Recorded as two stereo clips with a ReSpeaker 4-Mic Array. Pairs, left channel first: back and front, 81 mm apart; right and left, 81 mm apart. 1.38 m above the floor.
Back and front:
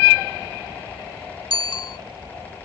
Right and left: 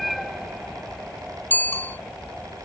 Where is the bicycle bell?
155° right.